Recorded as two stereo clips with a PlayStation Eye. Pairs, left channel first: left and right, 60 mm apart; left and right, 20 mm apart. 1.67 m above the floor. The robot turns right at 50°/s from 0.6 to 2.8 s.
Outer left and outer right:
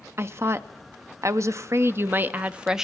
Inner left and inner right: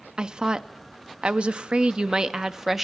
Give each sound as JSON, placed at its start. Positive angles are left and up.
{"t": 0.2, "sound": "a woman speaking", "azimuth_deg": -120, "distance_m": 0.6}